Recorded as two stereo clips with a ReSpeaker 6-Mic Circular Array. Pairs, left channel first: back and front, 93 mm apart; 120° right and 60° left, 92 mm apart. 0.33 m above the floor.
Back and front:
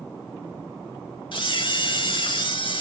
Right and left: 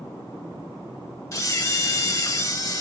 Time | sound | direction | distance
1.3 | a camera shutter | 170° right | 0.7 m